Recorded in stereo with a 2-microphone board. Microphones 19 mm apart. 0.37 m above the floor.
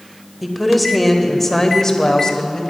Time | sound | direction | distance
0.4 | a woman speaking | 10° right (ahead or behind) | 1.2 m